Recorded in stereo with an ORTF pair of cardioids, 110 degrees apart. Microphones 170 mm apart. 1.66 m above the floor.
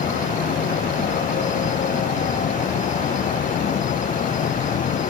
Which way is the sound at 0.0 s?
50° left.